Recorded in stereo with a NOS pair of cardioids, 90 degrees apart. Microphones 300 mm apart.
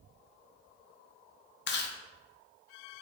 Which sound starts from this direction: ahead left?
Chewing, at 1.7 s.